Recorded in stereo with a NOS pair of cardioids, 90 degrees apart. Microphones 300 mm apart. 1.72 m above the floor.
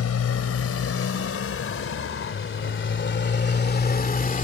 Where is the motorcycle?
55° left; by 4.5 s 30° left.